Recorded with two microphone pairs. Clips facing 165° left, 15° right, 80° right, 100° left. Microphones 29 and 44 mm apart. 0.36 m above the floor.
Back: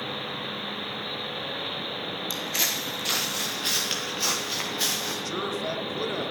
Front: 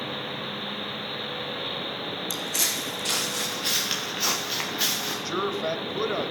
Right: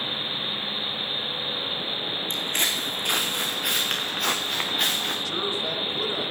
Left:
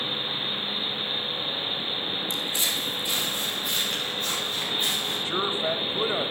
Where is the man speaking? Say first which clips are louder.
Front 2 dB, left 2 dB; 45° left, 1.4 m.